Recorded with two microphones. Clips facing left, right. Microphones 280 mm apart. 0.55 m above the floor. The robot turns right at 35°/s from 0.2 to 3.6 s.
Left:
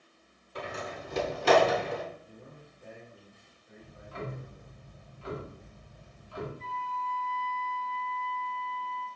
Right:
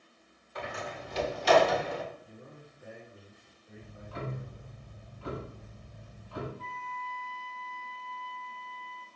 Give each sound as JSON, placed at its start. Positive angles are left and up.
{"t": 0.6, "sound": "a door slam", "side_deg": 35, "distance_m": 1.0}
{"t": 2.2, "sound": "a man speaking", "azimuth_deg": 170, "distance_m": 2.0}
{"t": 3.8, "sound": "ticking", "side_deg": -60, "distance_m": 1.2}
{"t": 6.6, "sound": "a flute", "side_deg": -60, "distance_m": 2.0}